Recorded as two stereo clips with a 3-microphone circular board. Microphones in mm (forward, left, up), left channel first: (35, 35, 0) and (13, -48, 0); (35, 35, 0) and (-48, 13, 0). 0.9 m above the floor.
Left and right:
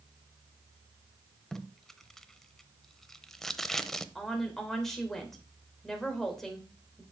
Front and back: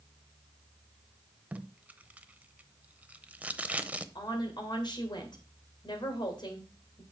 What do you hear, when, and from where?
1.5 s tape being pulled: 155° left, 0.7 m
4.2 s a woman speaking: 10° right, 2.5 m